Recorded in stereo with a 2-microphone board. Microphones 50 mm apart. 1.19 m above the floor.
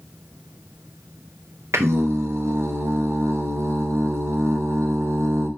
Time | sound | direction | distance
1.7 | singing | 60° right (ahead or behind) | 0.6 m